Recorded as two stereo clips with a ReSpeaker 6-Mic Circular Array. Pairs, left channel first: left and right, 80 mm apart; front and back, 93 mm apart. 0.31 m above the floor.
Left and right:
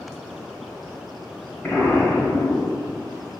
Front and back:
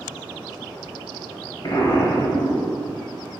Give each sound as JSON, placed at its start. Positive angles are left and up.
{"t": 1.6, "sound": "an explosion", "azimuth_deg": 30, "distance_m": 1.1}